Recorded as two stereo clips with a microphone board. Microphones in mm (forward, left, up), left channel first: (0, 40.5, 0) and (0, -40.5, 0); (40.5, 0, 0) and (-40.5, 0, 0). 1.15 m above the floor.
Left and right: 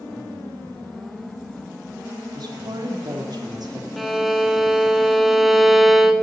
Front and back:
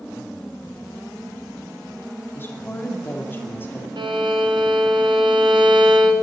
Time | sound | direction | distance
2.4 | a woman speaking | 60° right | 2 m
4.0 | a violin | straight behind | 1.5 m